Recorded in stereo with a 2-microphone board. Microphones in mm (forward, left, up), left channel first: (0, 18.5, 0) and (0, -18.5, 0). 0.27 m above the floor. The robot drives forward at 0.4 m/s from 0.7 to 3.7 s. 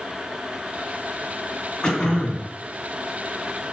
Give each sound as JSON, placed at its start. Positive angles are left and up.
{"t": 1.8, "sound": "throat clearing", "side_deg": 20, "distance_m": 2.0}